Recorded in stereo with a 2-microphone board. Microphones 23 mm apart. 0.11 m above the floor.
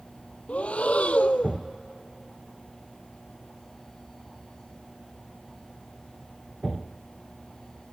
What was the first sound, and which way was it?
Breathing, 75° left (ahead or behind).